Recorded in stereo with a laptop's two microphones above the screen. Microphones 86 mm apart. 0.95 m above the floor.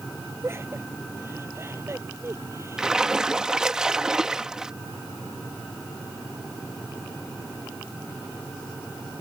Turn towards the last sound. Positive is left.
turn(degrees=-10)  # may be behind; listen again after turning